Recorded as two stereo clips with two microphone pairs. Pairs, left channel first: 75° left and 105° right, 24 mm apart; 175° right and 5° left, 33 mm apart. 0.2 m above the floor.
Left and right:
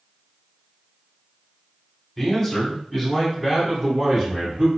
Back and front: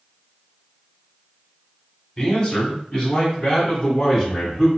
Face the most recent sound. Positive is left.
turn(degrees=-100)